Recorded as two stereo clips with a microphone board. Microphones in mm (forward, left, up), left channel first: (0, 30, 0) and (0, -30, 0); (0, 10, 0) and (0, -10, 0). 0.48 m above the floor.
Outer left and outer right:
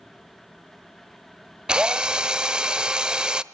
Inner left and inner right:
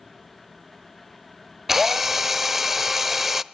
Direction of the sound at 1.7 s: 15° right (ahead or behind).